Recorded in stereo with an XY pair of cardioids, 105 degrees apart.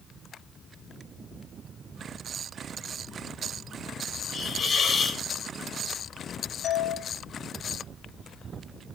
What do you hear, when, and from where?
4.3 s a hiss: 50° left, 3 m
6.6 s a doorbell: 65° left, 7 m